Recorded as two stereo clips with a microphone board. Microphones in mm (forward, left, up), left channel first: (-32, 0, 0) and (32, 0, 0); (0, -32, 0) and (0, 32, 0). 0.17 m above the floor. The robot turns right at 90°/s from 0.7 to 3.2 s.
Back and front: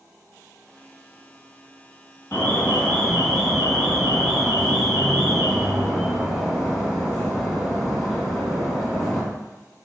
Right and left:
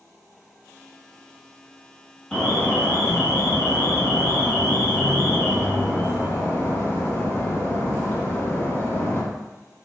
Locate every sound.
2.3 s an alarm: 165° right, 0.9 m; by 9.2 s 85° right, 0.9 m